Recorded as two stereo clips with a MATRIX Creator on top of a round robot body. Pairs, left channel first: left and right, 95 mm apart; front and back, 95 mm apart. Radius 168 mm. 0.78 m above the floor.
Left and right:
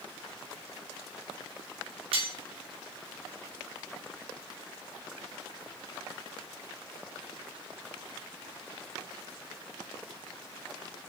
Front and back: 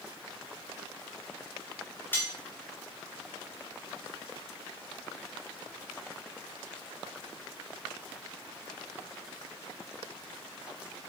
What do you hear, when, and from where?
2.1 s cutlery clinking: 70° right, 1.5 m